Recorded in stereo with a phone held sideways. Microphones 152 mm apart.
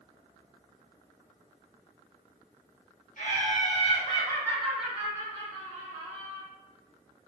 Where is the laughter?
55° left (ahead or behind), 1.1 m; by 6.4 s 50° right (ahead or behind), 1.2 m.